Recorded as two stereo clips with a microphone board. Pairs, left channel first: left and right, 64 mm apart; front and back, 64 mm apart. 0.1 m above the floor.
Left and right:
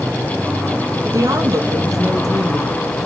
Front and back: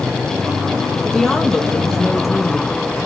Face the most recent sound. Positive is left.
turn(degrees=-90)